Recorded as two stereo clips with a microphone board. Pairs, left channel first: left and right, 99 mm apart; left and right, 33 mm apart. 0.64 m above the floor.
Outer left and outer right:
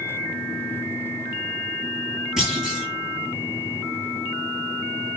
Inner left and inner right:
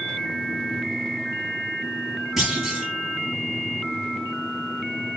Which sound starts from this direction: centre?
A clunk, at 2.4 s.